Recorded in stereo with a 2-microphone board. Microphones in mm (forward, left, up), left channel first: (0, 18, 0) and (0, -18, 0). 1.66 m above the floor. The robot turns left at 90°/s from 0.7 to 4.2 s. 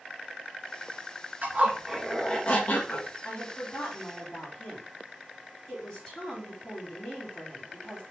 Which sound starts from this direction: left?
A woman speaking, at 3.2 s.